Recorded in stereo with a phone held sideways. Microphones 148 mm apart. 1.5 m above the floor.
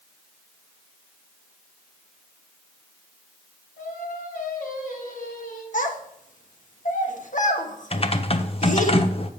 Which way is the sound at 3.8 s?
75° left (ahead or behind).